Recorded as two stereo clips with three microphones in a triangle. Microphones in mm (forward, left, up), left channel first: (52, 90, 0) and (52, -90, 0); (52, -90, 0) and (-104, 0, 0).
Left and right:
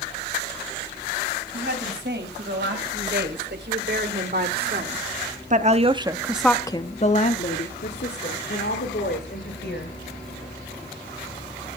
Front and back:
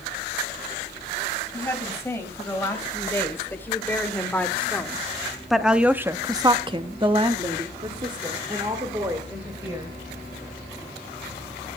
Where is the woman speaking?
105° right, 4 m; by 10.0 s 80° left, 3 m.